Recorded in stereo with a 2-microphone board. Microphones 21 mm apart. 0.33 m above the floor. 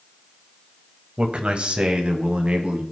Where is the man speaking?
50° right (ahead or behind), 1.3 m; by 2.8 s 70° right (ahead or behind), 2.5 m.